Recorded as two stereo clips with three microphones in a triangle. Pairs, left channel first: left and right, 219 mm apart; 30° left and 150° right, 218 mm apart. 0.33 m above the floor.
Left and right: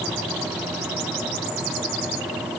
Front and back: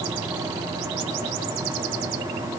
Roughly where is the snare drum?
No snare drum in this recording.